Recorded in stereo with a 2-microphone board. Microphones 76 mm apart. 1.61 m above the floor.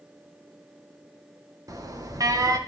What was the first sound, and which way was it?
An alarm, 45° right (ahead or behind).